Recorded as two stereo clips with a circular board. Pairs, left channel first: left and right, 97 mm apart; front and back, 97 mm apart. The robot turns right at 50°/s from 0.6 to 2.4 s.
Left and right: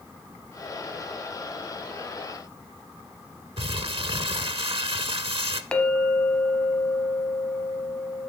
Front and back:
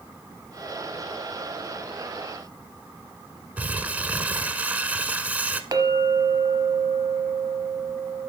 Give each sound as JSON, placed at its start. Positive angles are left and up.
{"t": 3.6, "sound": "crumpling", "azimuth_deg": -105, "distance_m": 0.5}
{"t": 5.7, "sound": "a clink", "azimuth_deg": 165, "distance_m": 0.9}